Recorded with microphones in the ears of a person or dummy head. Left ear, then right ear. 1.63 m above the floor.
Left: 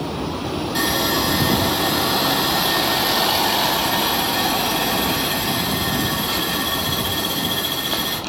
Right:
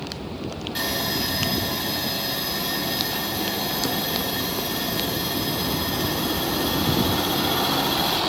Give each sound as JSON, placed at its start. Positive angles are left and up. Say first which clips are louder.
{"t": 0.8, "sound": "sawing", "louder": "left 5 dB", "side_deg": 15, "distance_m": 6.0}